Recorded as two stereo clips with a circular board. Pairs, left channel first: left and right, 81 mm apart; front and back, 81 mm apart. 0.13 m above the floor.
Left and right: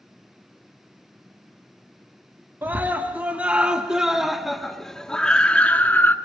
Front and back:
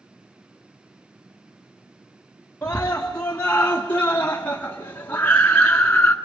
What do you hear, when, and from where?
2.6 s a scream: 60° right, 2 m; by 6.2 s 55° left, 1.9 m